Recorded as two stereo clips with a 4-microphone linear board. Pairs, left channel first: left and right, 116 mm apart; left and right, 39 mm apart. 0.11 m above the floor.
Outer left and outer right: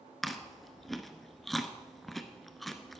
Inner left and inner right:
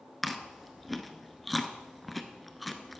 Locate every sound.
0.2 s chewing: centre (ahead or behind), 1.0 m